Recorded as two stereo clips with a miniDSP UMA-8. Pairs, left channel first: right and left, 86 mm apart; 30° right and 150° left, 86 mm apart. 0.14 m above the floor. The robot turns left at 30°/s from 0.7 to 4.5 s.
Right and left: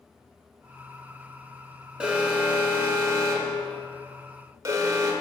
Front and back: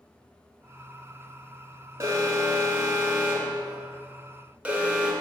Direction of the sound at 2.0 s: 155° left.